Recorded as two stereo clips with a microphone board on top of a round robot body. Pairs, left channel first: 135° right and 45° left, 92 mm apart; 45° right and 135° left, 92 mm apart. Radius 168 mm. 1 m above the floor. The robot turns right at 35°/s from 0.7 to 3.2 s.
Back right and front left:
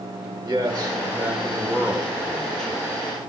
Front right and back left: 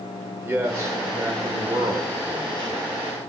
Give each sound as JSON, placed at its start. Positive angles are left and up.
{"t": 0.4, "sound": "a man speaking", "azimuth_deg": 80, "distance_m": 1.3}